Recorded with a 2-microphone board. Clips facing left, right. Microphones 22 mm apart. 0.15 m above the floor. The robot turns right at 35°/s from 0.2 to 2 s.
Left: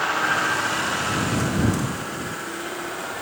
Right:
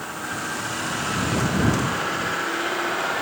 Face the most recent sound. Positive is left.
turn(degrees=-155)